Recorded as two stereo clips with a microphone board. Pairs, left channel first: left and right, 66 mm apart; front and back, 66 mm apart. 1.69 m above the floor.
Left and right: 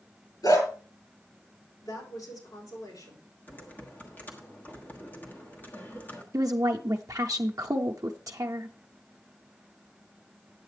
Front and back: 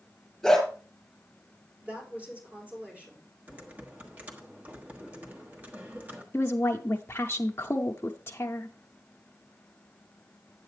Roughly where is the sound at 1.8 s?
Left.